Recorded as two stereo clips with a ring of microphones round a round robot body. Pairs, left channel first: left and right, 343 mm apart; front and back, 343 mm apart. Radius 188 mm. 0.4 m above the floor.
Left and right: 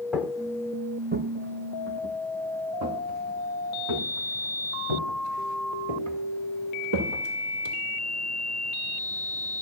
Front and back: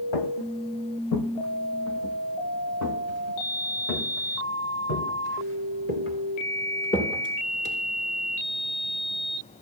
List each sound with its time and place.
0.1 s footsteps: straight ahead, 1.2 m; by 7.7 s 60° right, 6.5 m